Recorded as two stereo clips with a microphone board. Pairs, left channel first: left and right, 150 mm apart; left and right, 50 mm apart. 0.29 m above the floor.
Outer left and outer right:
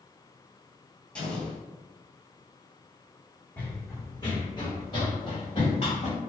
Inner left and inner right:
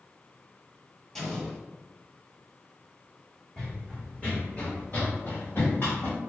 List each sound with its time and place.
1.1 s an explosion: 10° left (ahead or behind), 1.1 m
3.6 s running footsteps: 10° left (ahead or behind), 0.9 m; by 6.2 s 50° left (ahead or behind), 1.9 m